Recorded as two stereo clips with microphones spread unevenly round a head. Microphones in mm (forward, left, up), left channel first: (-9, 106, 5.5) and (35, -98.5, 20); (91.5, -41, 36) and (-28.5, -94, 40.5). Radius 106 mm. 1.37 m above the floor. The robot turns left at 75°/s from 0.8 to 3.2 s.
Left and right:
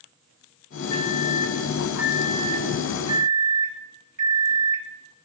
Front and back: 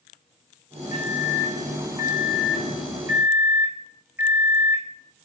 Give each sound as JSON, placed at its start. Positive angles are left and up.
{"t": 0.9, "sound": "a microwave", "azimuth_deg": 85, "distance_m": 1.7}